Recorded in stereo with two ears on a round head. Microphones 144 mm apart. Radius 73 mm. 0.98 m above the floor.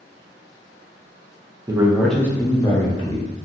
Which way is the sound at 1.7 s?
20° right (ahead or behind).